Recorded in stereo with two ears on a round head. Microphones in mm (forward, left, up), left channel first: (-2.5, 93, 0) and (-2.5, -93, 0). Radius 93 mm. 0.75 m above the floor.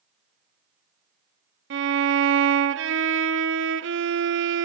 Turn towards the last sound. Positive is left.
turn(degrees=-65)  # may be behind; listen again after turning